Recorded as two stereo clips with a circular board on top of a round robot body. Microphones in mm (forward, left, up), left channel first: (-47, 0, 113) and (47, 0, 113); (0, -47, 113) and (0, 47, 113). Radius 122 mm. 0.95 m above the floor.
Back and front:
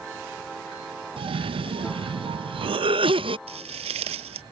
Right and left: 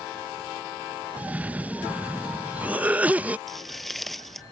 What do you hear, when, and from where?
1.2 s a cough: 15° left
3.5 s footsteps: straight ahead